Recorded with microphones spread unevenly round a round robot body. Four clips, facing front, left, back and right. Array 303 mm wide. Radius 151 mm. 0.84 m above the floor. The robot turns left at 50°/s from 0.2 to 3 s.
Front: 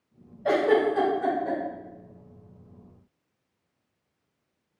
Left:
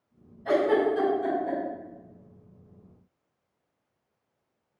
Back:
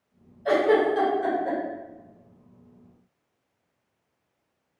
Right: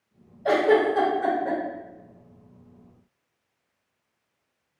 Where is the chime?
No chime in this recording.